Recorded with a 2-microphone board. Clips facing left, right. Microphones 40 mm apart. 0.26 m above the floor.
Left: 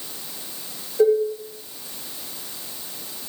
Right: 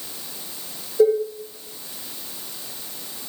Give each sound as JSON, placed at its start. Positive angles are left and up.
{"t": 1.0, "sound": "dishes clattering", "side_deg": 10, "distance_m": 1.2}